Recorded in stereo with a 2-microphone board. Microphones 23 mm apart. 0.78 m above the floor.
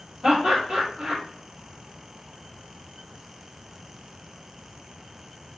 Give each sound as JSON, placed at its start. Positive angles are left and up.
{"t": 0.2, "sound": "laughter", "side_deg": -60, "distance_m": 1.9}